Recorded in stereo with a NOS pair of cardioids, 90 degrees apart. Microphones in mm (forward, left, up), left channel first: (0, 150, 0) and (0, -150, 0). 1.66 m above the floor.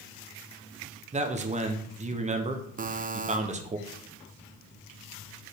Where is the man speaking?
25° right, 1.2 m.